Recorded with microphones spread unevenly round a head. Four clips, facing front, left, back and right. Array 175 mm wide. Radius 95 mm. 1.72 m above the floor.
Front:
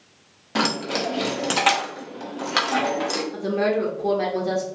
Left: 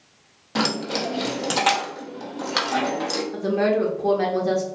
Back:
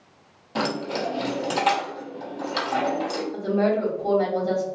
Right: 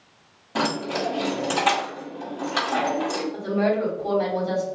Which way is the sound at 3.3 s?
55° left.